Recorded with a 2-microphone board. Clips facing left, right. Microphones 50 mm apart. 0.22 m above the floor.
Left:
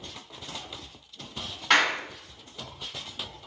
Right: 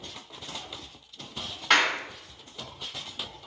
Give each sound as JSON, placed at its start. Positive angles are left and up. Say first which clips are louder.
{"t": 1.7, "sound": "a clap", "louder": "even", "side_deg": 0, "distance_m": 1.8}